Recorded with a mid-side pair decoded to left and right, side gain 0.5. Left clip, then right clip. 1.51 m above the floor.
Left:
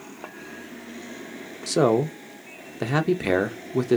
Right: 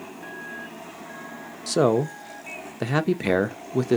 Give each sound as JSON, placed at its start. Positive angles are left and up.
{"t": 1.7, "sound": "a man speaking", "azimuth_deg": -5, "distance_m": 0.6}